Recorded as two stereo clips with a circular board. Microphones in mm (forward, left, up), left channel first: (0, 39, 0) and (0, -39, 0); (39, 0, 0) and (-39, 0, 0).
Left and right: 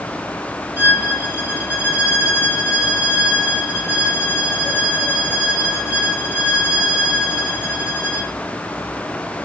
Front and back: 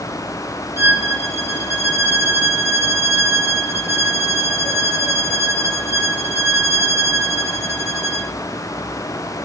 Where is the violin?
145° right, 1.3 m.